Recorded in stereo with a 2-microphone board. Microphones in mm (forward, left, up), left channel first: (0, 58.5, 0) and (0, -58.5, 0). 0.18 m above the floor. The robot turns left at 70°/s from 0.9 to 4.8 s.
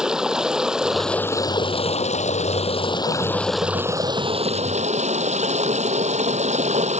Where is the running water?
175° right; by 7.0 s 85° right.